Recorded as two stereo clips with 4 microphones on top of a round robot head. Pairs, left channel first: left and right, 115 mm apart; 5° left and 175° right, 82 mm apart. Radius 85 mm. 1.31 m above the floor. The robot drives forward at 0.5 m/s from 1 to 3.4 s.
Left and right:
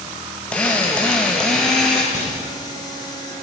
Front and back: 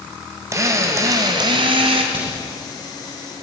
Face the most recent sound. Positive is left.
turn(degrees=165)